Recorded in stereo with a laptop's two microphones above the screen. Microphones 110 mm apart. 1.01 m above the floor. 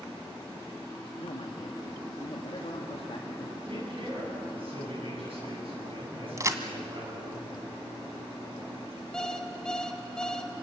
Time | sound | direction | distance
1.2 | a man speaking | 60° left (ahead or behind) | 1.9 m
3.6 | a man speaking | 60° right (ahead or behind) | 10 m
6.4 | a crack | 30° right (ahead or behind) | 1.9 m
9.1 | an alarm clock | 5° left (ahead or behind) | 2.5 m